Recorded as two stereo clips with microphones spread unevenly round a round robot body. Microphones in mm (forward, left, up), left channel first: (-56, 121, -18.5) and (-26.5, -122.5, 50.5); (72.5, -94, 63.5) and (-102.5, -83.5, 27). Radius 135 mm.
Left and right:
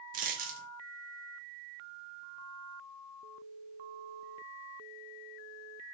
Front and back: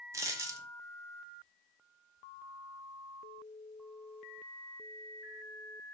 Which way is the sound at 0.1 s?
105° right.